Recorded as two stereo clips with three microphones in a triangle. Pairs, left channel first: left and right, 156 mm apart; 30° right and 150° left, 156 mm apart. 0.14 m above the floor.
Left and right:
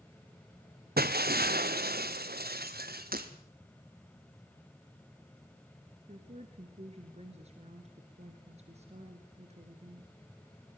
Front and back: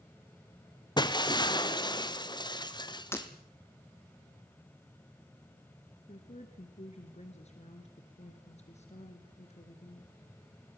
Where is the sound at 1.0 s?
95° right, 1.0 m.